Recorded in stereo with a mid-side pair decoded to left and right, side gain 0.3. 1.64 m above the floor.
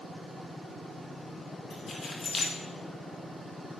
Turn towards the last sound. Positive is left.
turn(degrees=55)